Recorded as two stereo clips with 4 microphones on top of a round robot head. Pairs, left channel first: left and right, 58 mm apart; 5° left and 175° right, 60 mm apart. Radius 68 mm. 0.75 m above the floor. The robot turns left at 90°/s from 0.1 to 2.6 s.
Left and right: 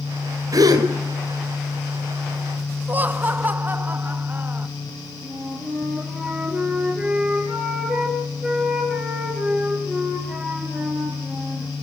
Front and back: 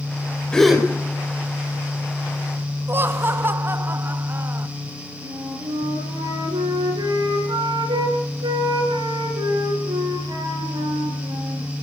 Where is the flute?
170° right, 5 m.